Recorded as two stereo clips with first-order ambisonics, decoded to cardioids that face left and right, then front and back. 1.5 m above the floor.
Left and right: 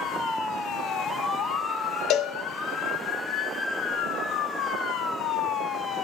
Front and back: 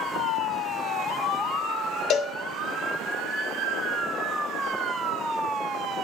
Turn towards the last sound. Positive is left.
turn(degrees=50)